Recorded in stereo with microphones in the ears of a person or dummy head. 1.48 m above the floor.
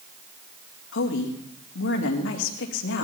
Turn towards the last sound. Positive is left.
turn(degrees=65)  # may be behind; listen again after turning